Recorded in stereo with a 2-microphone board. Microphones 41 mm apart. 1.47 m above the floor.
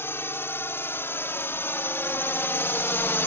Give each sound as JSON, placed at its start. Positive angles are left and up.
{"t": 0.0, "sound": "a drone", "side_deg": 75}